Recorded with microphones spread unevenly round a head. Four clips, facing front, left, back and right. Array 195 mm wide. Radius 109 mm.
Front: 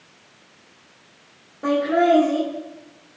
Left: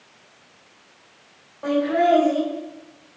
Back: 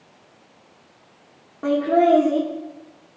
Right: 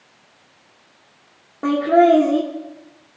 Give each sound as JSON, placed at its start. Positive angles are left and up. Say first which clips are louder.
{"t": 1.6, "sound": "laughter", "louder": "right 5 dB, back 1 dB", "azimuth_deg": -115, "distance_m": 1.8}